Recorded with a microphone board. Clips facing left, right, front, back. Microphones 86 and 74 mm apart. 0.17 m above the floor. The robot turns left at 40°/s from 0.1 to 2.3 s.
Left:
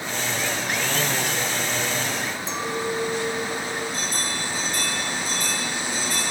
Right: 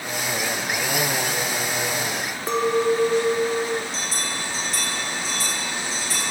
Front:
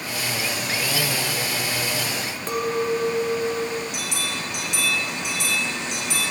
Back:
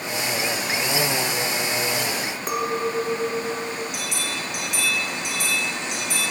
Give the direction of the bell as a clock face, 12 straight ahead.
3 o'clock.